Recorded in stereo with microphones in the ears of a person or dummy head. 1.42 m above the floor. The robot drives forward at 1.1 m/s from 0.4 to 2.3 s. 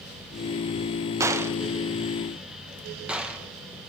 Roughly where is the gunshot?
Centre.